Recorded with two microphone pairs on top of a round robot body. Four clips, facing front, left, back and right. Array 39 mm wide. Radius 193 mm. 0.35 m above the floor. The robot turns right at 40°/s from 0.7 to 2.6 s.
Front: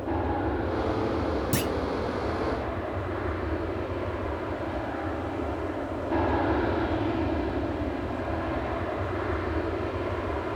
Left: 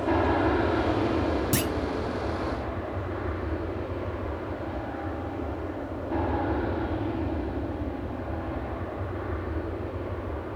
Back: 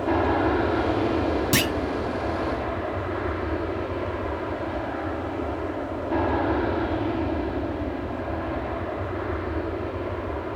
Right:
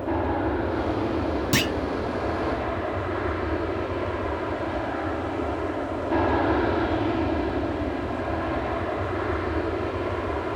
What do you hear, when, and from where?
0.0 s an aircraft: 150° left; by 10.6 s 85° right
1.5 s a clunk: 140° right; by 1.7 s 130° right